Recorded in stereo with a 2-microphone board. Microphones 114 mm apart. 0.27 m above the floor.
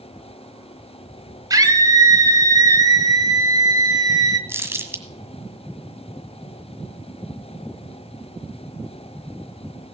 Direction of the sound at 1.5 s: 35° right (ahead or behind).